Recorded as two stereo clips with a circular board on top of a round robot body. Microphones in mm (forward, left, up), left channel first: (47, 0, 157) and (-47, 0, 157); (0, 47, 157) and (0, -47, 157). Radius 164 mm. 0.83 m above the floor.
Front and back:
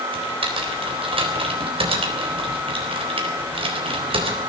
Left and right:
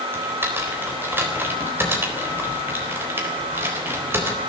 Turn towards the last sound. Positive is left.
turn(degrees=-160)